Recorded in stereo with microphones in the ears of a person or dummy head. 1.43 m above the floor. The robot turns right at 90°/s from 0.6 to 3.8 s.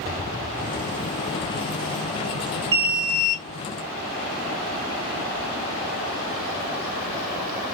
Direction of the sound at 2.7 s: 30° right.